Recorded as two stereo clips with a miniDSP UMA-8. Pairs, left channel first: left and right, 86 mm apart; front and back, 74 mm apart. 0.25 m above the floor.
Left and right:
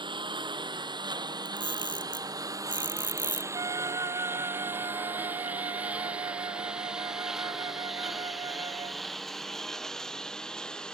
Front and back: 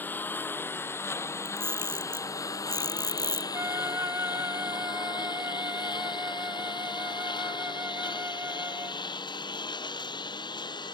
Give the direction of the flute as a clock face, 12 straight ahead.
4 o'clock.